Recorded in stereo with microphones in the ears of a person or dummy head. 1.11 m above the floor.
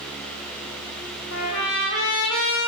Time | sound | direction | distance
1.3 | a trumpet | 65° left (ahead or behind) | 3 m